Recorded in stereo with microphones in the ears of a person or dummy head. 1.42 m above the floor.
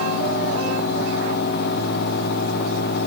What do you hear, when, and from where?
Only background noise.